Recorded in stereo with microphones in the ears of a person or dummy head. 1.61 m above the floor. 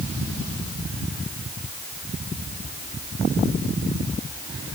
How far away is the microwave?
I don't hear a microwave.